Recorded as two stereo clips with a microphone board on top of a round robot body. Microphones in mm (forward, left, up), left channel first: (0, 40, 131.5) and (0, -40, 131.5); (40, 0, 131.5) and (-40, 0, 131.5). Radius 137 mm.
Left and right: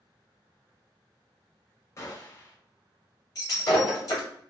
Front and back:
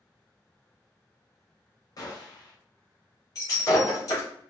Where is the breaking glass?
45° left, 1.7 m.